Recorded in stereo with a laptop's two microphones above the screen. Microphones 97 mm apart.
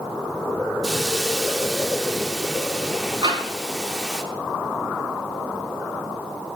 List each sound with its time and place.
0.8 s a hiss: centre (ahead or behind), 0.8 m
3.2 s tapping: 60° right (ahead or behind), 7.5 m